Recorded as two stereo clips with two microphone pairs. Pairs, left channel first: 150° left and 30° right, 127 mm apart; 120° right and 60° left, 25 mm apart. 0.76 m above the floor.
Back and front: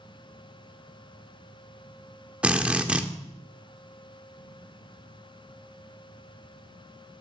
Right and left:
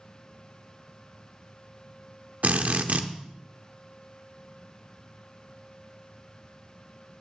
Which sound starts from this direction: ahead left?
A drill, at 2.4 s.